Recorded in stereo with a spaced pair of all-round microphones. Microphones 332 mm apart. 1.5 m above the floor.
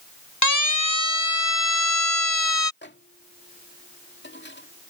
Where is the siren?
60° left (ahead or behind); by 2.7 s 80° left.